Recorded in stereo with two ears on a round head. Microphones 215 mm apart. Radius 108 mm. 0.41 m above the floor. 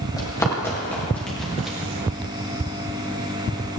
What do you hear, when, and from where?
0.2 s running footsteps: 15° left (ahead or behind), 5.5 m; by 1.8 s 5° right (ahead or behind), 5 m